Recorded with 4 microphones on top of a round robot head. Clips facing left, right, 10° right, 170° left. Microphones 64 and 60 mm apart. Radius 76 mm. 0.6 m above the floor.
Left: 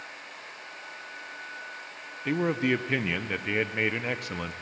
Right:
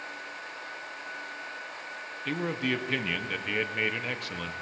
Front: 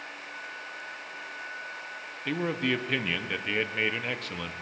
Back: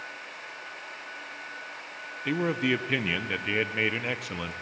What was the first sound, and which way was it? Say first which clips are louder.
A man speaking: left 5 dB, back 2 dB; 105° left.